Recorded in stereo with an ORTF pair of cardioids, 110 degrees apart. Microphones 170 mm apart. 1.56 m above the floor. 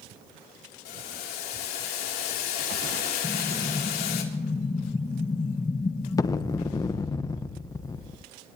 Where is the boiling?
70° left, 3 m.